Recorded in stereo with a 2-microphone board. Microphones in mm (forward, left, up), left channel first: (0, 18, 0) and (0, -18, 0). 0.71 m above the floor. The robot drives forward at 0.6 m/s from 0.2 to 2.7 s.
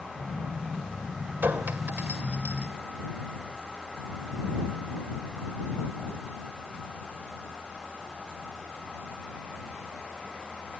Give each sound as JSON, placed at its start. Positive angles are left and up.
{"t": 1.4, "sound": "a clink", "side_deg": -80, "distance_m": 2.0}